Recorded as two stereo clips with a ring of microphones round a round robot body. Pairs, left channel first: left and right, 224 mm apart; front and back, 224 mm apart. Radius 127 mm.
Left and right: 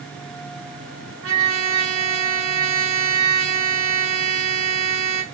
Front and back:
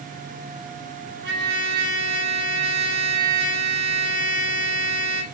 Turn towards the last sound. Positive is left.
turn(degrees=-130)